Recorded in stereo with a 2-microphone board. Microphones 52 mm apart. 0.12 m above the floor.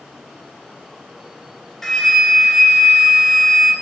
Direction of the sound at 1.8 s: 5° left (ahead or behind).